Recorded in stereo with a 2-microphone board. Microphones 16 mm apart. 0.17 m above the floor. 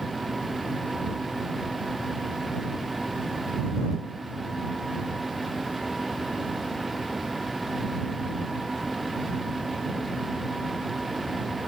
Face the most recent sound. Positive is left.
No sound to turn to.